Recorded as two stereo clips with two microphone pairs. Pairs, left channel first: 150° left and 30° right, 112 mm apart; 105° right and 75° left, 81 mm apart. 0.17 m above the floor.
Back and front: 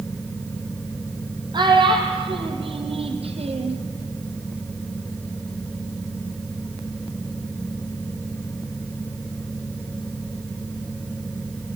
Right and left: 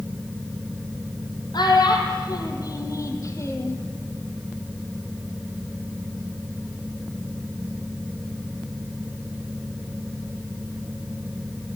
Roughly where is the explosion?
No explosion in this recording.